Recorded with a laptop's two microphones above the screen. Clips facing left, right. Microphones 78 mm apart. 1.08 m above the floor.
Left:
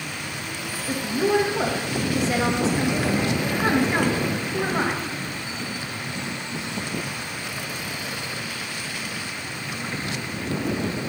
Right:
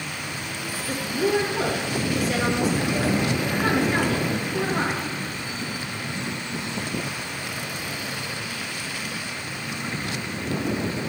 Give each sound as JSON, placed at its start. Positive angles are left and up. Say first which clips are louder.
{"t": 0.9, "sound": "a woman speaking", "louder": "left 2 dB", "side_deg": 25, "distance_m": 1.7}